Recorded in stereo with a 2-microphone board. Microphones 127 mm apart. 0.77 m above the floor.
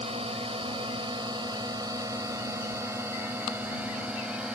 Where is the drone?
45° right (ahead or behind); by 4.6 s 5° right (ahead or behind).